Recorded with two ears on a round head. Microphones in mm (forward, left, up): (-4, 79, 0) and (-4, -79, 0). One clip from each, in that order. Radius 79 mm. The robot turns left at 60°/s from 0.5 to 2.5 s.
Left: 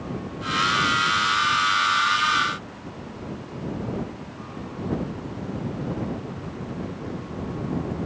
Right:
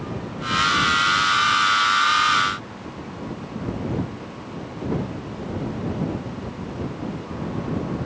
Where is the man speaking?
I don't hear a man speaking.